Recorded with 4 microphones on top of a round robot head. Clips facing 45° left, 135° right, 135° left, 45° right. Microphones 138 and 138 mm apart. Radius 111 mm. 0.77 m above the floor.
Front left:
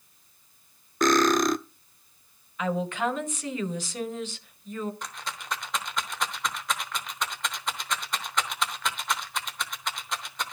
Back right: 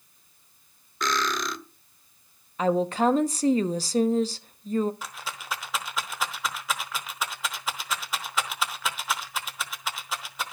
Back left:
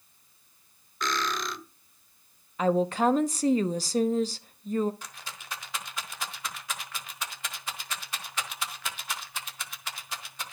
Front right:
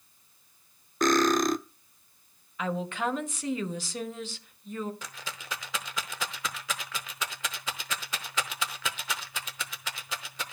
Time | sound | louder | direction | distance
1.0 | cutlery clinking | front left 8 dB, front right 9 dB | straight ahead | 0.5 m
2.6 | a woman speaking | back right 5 dB, back left 7 dB | straight behind | 1.0 m
5.0 | a rattle | even, front right 2 dB | 45° right | 0.8 m